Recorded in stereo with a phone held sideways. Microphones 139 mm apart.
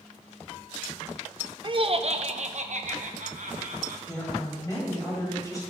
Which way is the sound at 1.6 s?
35° right (ahead or behind).